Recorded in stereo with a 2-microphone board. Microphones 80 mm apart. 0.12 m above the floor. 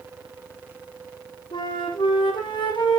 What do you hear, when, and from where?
1.5 s a flute: 75° left (ahead or behind), 2 m